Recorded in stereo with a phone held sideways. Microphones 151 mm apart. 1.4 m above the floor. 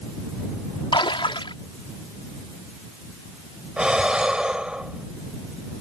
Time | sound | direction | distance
0.9 | a splash | 35° left (ahead or behind) | ?
3.8 | breathing | 5° right (ahead or behind) | ?